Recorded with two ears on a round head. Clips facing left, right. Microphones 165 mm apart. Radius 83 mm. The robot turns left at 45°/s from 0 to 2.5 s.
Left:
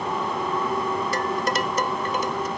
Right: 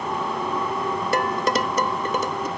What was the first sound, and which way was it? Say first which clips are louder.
Dishes clattering: right 2 dB; 50° right (ahead or behind).